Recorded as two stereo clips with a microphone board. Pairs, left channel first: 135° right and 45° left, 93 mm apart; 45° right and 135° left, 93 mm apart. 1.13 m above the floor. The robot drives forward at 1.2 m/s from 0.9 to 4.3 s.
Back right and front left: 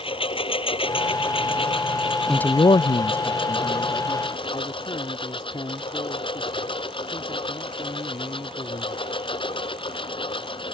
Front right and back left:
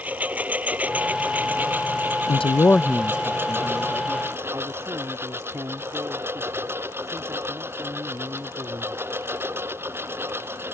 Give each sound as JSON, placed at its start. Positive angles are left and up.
{"t": 0.0, "sound": "a lawn mower", "azimuth_deg": -150}
{"t": 2.3, "sound": "a man speaking", "azimuth_deg": -45}